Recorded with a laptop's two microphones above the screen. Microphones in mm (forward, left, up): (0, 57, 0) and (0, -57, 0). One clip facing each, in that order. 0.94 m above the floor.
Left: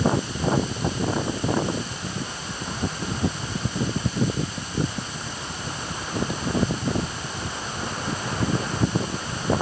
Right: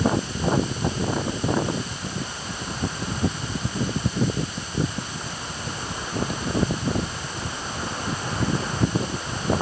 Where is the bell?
I don't hear a bell.